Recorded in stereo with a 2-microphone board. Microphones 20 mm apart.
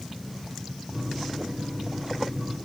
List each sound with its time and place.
0.9 s a microwave: 25° right (ahead or behind), 4 m